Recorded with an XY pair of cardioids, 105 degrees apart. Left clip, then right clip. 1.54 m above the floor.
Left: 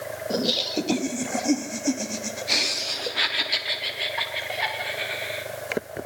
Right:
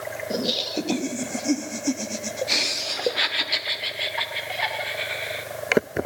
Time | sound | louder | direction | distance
0.3 | laughter | left 1 dB | 10° left | 2.5 m